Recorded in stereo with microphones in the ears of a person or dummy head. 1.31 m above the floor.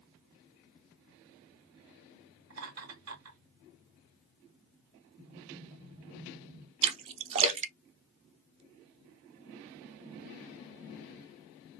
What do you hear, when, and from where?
2.5 s laughter: 80° right, 2.0 m
5.2 s a sliding door: 50° right (ahead or behind), 2.5 m
6.8 s a splash: 30° right (ahead or behind), 0.7 m